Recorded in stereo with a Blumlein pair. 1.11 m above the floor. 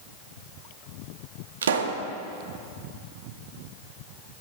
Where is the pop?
65° right, 1.4 m.